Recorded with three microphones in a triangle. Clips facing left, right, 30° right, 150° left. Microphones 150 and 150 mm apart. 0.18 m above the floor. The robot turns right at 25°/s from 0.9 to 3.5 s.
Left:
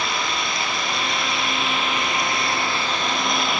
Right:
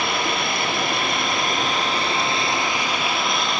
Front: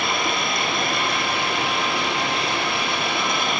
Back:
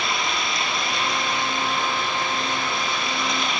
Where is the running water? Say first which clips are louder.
Right 3 dB, front 3 dB; 60° right, 1.7 m; by 3.6 s 5° left, 1.7 m.